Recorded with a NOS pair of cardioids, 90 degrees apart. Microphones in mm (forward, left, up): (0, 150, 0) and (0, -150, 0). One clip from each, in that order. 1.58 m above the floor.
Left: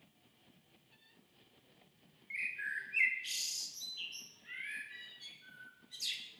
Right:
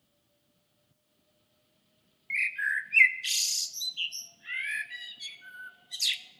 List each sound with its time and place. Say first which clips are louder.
2.3 s a bird: right 10 dB; 55° right, 0.8 m